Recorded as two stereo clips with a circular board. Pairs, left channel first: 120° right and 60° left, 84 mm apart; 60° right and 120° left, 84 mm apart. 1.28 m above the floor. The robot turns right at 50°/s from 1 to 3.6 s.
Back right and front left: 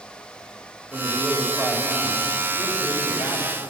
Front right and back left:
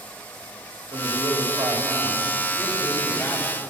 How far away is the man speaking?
About 3.5 m.